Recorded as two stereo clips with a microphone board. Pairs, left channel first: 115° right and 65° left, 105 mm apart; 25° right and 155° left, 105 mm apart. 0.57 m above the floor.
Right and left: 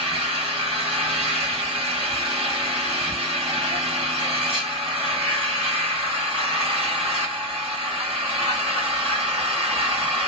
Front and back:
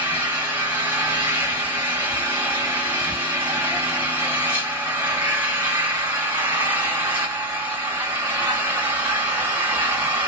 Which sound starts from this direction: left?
An engine running, at 0.0 s.